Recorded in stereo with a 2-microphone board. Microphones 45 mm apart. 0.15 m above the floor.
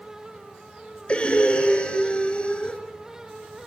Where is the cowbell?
I don't hear a cowbell.